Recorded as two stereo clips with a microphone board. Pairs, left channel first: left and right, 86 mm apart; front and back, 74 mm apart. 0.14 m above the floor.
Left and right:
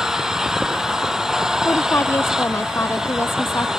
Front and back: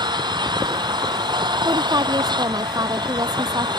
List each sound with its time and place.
0.0 s an engine running: 175° right
1.6 s a woman speaking: 150° left